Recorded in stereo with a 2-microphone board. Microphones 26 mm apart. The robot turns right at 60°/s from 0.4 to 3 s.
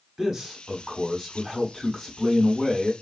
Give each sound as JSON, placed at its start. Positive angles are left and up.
{"t": 0.2, "sound": "a man speaking", "side_deg": -15, "distance_m": 1.2}